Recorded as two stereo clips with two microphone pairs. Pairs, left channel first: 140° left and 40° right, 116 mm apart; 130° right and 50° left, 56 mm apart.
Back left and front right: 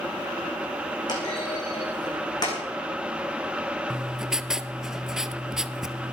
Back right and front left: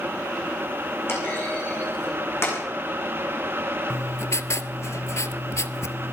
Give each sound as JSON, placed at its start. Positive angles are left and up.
{"t": 1.1, "sound": "a clunk", "azimuth_deg": -170, "distance_m": 6.0}
{"t": 3.9, "sound": "writing", "azimuth_deg": -125, "distance_m": 0.6}